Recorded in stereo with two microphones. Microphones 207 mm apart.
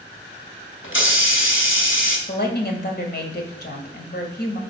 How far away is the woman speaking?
About 2.0 m.